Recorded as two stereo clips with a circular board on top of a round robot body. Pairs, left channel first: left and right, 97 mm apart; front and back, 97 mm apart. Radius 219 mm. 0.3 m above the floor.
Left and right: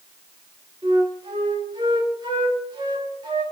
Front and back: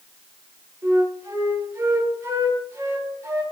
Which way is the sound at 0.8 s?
125° right.